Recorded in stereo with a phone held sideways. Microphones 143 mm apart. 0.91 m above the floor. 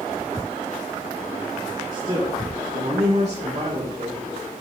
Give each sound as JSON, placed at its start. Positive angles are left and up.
{"t": 1.9, "sound": "a man speaking", "side_deg": -25, "distance_m": 1.2}